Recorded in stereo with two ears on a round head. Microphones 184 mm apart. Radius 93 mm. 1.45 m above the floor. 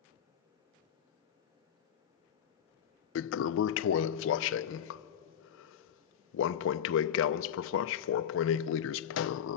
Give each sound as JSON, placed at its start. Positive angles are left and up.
{"t": 3.1, "sound": "a toilet flushing", "side_deg": 65, "distance_m": 0.6}